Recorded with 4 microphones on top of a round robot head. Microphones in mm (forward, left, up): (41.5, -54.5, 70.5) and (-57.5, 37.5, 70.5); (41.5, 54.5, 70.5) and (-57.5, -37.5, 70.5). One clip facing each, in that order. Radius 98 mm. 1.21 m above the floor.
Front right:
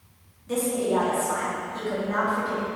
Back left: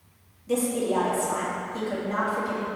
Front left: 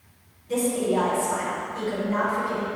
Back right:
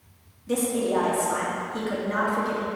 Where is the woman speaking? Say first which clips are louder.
Even, front left 1 dB; 145° right, 3 m.